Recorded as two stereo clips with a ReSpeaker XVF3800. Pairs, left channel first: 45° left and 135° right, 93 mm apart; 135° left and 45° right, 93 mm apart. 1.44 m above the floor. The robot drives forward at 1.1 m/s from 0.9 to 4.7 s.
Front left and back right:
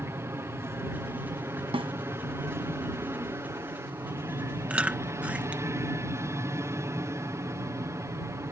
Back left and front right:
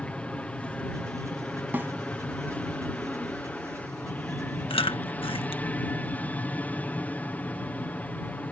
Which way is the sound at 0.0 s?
165° right.